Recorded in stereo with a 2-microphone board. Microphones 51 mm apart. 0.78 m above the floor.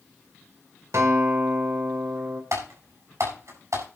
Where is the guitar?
65° right (ahead or behind), 3.5 m.